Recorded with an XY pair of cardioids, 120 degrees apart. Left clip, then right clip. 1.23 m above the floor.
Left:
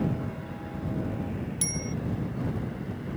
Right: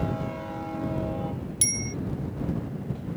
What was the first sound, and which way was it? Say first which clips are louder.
A bicycle bell: right 6 dB; 35° right.